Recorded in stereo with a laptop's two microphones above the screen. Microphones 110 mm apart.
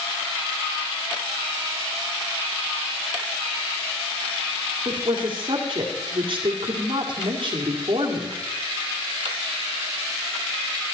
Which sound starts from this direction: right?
A woman speaking, at 4.8 s.